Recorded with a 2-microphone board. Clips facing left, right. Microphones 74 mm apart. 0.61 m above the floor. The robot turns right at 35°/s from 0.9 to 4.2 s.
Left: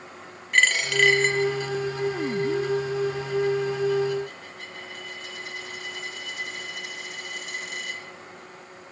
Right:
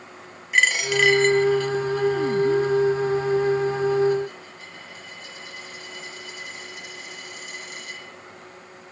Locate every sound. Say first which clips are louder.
0.5 s a dropped coin: right 1 dB; 5° right (ahead or behind), 1.4 m; by 8.0 s 70° left (ahead or behind), 1.4 m